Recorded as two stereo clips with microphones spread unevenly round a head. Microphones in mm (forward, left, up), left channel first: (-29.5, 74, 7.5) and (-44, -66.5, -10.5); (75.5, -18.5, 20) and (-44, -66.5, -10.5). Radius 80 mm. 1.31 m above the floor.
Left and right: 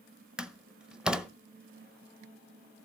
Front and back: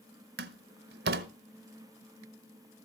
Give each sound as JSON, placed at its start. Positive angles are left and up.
{"t": 0.4, "sound": "a door slam", "azimuth_deg": 175, "distance_m": 0.8}